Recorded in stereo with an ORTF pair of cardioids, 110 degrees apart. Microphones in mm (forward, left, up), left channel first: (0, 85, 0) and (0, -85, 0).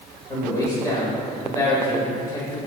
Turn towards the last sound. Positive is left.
turn(degrees=20)